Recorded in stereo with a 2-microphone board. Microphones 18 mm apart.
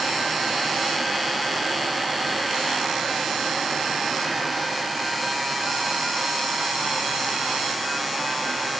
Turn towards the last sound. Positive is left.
No sound to turn to.